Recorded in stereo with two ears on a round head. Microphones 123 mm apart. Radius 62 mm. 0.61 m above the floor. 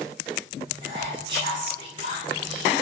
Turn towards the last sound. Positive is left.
turn(degrees=-35)  # may be behind; listen again after turning